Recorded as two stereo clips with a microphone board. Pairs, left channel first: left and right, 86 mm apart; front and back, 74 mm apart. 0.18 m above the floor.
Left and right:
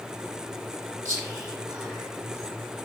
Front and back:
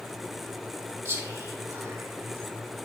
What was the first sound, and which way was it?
Whispering, 140° right.